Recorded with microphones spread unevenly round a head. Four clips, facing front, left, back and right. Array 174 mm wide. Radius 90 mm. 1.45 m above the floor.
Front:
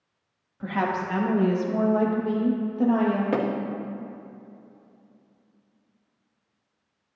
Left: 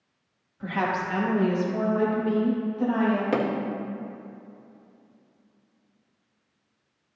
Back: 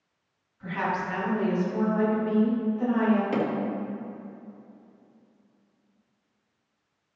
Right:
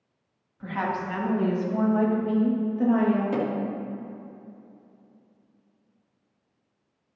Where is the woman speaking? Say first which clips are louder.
Left 2 dB, front 3 dB; 20° left, 2.5 m; by 3.2 s 40° right, 2 m.